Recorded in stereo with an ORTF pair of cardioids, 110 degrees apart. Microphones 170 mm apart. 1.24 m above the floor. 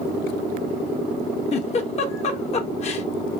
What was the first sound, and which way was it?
A giggle, 40° left.